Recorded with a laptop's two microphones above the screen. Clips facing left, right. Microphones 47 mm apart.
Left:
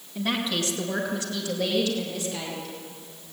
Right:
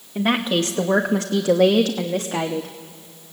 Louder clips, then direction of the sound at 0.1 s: Right 7 dB; 35° right (ahead or behind).